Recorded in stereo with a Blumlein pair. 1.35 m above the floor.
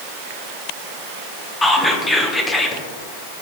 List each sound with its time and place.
1.6 s whispering: 10° left, 0.6 m